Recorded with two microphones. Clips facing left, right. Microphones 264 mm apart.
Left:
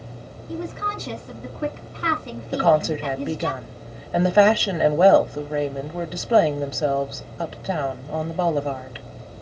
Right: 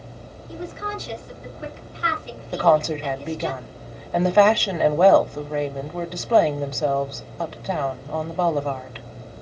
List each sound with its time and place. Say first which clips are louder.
0.5 s a woman speaking: left 2 dB; 55° left (ahead or behind), 2.5 m
2.5 s a woman speaking: even; 10° left (ahead or behind), 1.2 m